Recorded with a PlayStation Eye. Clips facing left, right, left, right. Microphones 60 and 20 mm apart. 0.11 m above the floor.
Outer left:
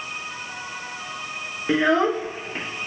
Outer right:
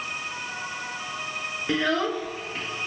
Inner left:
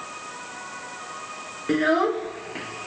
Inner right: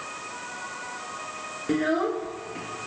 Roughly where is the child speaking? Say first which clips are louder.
Outer left 6 dB, inner left 4 dB; left.